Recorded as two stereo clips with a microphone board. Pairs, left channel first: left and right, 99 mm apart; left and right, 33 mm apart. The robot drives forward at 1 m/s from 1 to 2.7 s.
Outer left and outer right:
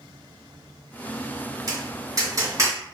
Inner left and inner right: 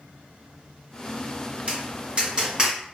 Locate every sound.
1.7 s tapping: 40° right (ahead or behind), 1.9 m; by 2.8 s 35° right (ahead or behind), 2.5 m